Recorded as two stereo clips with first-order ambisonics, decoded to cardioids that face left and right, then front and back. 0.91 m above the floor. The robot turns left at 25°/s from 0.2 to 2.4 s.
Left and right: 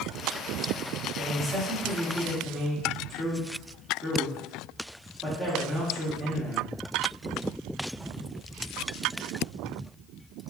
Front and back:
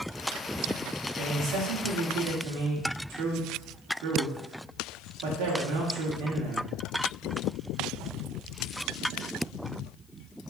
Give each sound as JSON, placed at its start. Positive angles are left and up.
{"t": 1.2, "sound": "a man speaking", "azimuth_deg": -145, "distance_m": 1.8}